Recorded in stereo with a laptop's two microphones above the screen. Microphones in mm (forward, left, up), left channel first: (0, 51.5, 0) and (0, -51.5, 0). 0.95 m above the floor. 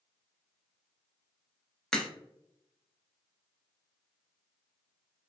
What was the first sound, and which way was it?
A crack, 5° left (ahead or behind).